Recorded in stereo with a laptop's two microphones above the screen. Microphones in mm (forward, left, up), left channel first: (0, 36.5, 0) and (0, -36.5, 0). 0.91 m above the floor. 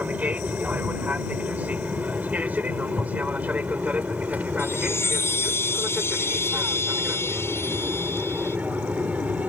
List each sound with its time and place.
0.0 s an aircraft: 20° right (ahead or behind)
4.6 s a chime: 35° left (ahead or behind)